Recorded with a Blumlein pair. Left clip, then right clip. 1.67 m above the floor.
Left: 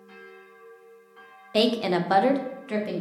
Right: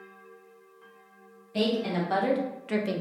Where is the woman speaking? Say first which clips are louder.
Left 5 dB; 60° left, 0.6 m; by 3.0 s 15° right, 0.7 m.